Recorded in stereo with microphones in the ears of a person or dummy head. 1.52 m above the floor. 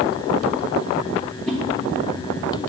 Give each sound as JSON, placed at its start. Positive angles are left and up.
{"t": 1.5, "sound": "a whoosh", "side_deg": 5, "distance_m": 1.0}